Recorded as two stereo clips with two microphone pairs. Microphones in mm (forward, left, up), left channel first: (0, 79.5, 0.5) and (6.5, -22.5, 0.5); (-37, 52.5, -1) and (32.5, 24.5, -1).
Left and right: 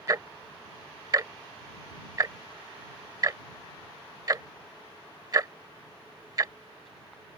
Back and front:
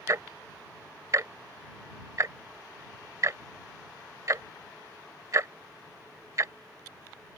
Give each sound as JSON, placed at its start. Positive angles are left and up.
{"t": 0.1, "sound": "ticking", "azimuth_deg": -40}